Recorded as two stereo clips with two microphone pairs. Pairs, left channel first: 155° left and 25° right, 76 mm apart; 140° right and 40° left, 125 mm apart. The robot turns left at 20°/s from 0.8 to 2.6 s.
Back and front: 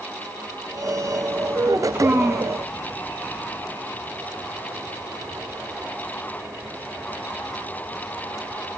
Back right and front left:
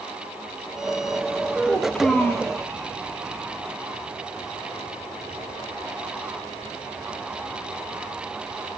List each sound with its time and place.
1.6 s a child speaking: 55° right, 1.2 m; by 2.5 s 70° right, 1.2 m